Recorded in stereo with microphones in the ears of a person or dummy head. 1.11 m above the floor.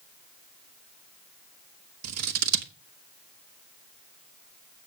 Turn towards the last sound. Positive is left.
turn(degrees=-85)